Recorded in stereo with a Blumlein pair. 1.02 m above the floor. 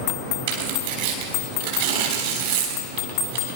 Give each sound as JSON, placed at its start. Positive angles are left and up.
{"t": 0.5, "sound": "tearing paper", "azimuth_deg": -55, "distance_m": 4.5}